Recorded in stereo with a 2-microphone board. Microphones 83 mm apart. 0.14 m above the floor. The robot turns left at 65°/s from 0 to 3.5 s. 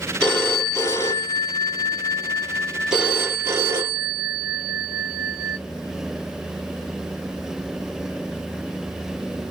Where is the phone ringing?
165° left, 1.5 m; by 5.6 s 50° right, 1.5 m.